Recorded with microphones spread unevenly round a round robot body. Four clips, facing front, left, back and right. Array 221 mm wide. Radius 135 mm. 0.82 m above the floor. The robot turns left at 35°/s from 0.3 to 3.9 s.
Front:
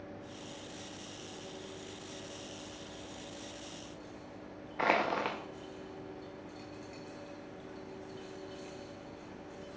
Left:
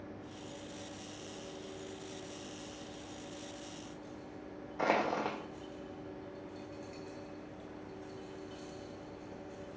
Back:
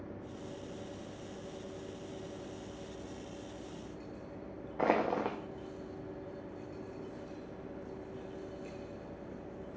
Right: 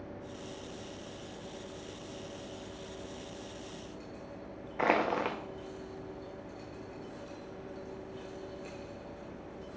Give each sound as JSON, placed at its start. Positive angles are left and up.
{"t": 4.8, "sound": "crushing", "azimuth_deg": -175, "distance_m": 0.5}